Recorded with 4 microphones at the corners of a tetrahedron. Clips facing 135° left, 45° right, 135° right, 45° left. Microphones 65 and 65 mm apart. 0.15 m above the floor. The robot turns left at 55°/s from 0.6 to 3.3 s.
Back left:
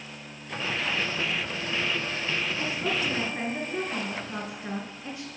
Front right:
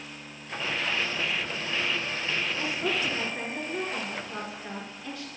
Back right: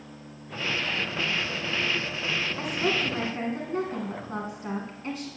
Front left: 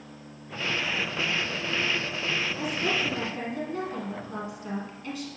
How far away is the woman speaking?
About 1.8 m.